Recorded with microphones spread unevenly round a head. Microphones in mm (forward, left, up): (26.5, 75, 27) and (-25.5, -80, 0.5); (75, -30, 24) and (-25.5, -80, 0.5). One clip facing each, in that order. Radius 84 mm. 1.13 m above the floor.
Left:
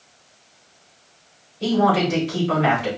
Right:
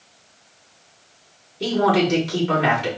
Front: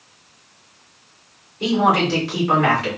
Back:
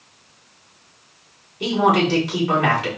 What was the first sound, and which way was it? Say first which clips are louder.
A man speaking: even, even; 85° right.